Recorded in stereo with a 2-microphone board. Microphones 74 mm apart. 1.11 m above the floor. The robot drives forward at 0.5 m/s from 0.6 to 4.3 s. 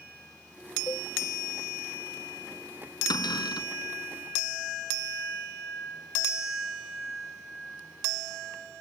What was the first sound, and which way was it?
A cowbell, 65° left (ahead or behind).